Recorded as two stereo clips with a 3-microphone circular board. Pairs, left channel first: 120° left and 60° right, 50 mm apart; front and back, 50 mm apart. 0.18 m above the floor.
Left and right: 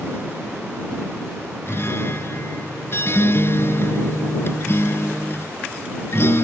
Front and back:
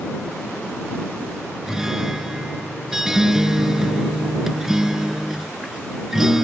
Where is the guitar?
100° left.